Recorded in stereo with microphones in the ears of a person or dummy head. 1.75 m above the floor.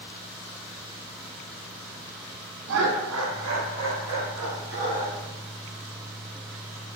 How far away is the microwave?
I don't hear a microwave.